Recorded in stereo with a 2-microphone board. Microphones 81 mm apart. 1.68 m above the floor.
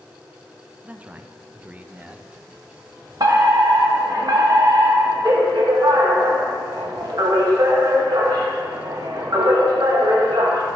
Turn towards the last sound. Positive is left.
turn(degrees=-55)  # may be behind; listen again after turning